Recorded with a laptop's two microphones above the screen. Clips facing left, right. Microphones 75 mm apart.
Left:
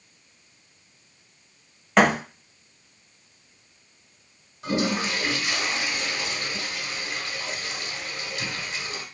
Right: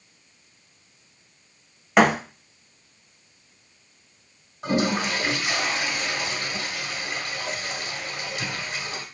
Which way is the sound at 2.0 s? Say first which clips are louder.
Right 1 dB; 10° right (ahead or behind).